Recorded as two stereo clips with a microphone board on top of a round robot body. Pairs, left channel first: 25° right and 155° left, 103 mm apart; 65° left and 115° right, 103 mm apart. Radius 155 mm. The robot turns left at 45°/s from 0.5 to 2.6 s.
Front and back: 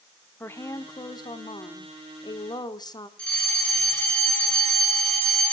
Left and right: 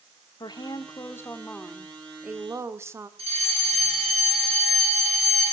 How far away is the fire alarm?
About 7.5 m.